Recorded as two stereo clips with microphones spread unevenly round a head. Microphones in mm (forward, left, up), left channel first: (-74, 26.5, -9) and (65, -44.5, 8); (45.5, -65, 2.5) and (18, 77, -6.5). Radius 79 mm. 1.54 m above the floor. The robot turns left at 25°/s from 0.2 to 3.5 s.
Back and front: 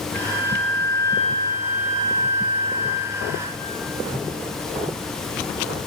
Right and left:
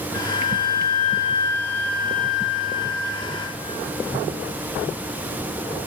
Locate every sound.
0.1 s a flute: 10° right, 3.5 m; by 3.4 s 95° right, 3.5 m